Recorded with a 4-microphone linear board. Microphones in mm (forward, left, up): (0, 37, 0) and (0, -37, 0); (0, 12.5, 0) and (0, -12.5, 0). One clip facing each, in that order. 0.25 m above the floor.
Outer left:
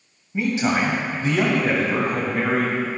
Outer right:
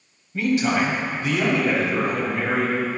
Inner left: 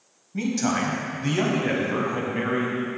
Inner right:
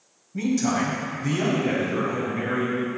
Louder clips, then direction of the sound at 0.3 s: Outer right 1 dB, inner right 1 dB; 20° left (ahead or behind).